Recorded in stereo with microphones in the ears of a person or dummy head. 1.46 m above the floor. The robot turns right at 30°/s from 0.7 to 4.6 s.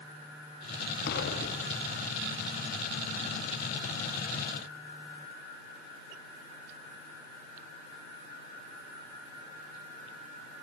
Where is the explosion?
60° left, 3 m; by 2.1 s 90° left, 3 m.